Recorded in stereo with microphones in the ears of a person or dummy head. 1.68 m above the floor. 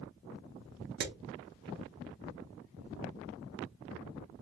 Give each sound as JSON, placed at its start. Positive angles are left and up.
{"t": 1.0, "sound": "hammering", "side_deg": -55, "distance_m": 0.9}